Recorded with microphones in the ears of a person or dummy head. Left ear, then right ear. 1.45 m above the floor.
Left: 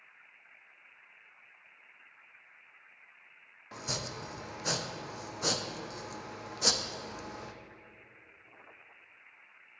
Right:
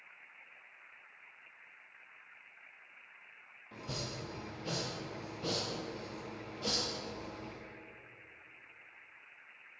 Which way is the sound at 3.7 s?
55° left (ahead or behind).